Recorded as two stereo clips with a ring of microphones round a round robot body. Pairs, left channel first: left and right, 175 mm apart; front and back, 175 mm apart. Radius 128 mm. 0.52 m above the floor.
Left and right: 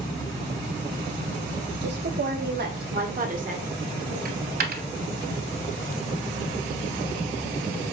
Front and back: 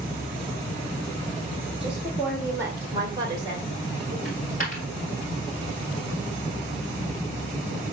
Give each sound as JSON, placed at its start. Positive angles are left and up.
{"t": 1.8, "sound": "a woman speaking", "azimuth_deg": -95, "distance_m": 3.0}
{"t": 4.2, "sound": "a dropped coin", "azimuth_deg": -60, "distance_m": 1.4}